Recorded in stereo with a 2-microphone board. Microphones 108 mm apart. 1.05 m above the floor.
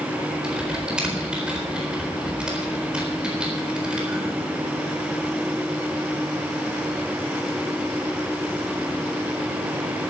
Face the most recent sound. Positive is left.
turn(degrees=-10)  # may be behind; listen again after turning